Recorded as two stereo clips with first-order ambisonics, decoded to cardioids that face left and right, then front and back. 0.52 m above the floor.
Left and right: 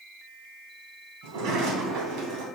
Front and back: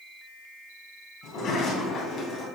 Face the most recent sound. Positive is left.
turn(degrees=-60)